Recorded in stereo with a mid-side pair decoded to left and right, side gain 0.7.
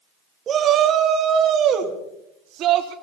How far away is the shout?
About 2 m.